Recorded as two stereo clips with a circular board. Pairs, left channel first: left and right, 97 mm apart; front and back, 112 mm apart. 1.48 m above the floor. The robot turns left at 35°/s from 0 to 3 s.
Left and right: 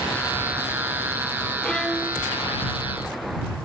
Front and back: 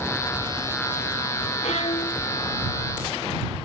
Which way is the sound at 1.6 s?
10° left.